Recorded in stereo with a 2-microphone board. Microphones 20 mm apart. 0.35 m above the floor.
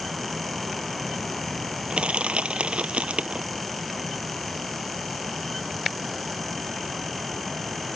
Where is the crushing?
75° right (ahead or behind).